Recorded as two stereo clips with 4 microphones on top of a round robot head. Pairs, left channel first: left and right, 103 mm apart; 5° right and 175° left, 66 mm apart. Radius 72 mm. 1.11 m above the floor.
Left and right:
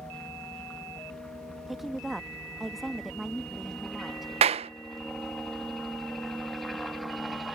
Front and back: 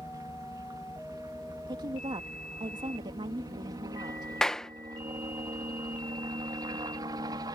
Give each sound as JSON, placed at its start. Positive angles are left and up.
{"t": 0.0, "sound": "a helicopter", "azimuth_deg": 170}
{"t": 1.7, "sound": "a woman speaking", "azimuth_deg": 180}
{"t": 4.4, "sound": "a clap", "azimuth_deg": -85}